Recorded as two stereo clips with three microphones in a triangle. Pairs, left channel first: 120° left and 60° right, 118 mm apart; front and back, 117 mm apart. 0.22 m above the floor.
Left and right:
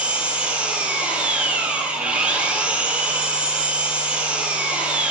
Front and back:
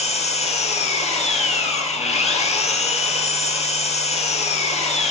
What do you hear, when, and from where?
0.0 s an engine running: 20° left, 1.2 m